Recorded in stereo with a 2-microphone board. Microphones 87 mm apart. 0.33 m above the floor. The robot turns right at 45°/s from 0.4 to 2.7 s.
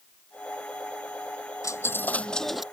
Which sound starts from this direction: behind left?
A dropped coin, at 1.6 s.